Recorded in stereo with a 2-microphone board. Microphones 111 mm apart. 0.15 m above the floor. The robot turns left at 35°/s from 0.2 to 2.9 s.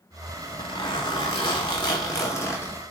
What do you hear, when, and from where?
0.4 s a zipper: 110° left, 1.3 m; by 2.8 s 25° left, 1.3 m